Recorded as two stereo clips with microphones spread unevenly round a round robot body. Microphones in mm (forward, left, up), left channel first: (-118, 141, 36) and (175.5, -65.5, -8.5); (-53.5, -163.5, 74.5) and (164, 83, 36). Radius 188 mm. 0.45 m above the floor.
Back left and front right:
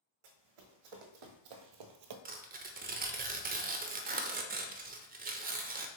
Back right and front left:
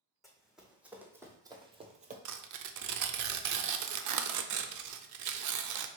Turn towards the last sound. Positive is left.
turn(degrees=25)